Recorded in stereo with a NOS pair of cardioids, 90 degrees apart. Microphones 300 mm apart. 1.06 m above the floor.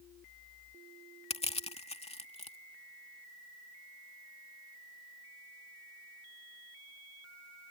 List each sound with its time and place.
1.3 s crushing: 20° left